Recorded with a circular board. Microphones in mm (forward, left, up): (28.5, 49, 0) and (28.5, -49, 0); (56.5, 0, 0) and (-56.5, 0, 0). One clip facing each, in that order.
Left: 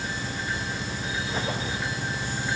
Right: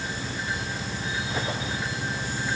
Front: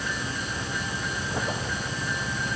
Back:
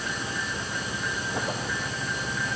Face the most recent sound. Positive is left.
No sound to turn to.